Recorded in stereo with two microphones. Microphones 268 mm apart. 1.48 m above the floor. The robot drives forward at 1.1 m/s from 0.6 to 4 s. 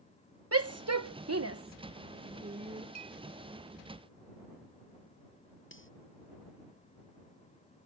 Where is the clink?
75° right (ahead or behind); by 3.2 s 80° right.